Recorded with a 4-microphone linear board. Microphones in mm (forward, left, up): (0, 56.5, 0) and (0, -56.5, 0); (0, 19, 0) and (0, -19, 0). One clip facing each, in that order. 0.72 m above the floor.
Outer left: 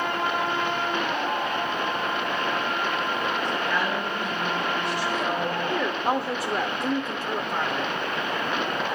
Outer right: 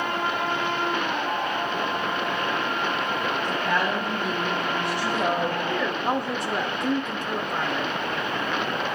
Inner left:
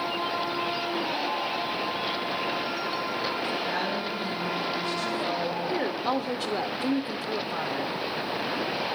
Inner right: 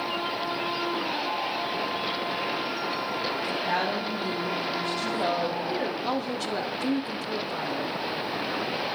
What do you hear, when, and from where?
3.4 s a woman speaking: 65° right (ahead or behind), 4.5 m; by 5.6 s 50° right (ahead or behind), 2.5 m
5.7 s a woman speaking: 5° left (ahead or behind), 0.7 m